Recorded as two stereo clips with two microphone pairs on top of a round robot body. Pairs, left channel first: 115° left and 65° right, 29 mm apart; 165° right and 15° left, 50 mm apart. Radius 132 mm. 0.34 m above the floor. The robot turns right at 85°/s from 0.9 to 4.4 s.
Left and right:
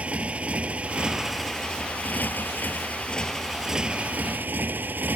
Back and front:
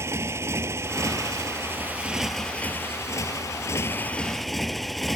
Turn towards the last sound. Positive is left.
turn(degrees=-80)